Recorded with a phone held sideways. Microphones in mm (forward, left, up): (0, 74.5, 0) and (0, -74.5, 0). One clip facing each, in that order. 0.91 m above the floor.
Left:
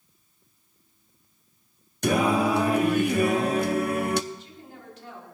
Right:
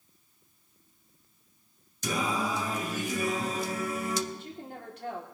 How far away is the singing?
About 0.6 m.